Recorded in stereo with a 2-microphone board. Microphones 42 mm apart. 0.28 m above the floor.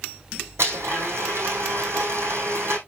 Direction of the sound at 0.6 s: 80° right.